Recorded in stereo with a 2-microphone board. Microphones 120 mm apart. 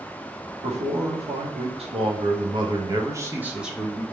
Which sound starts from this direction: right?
A man speaking, at 0.6 s.